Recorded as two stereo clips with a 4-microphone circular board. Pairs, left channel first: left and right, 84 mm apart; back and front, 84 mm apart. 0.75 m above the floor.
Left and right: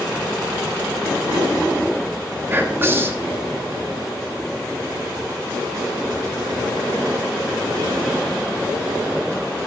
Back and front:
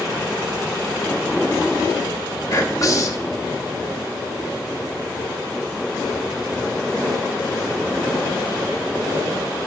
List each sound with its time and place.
2.5 s whispering: 145° right, 1.1 m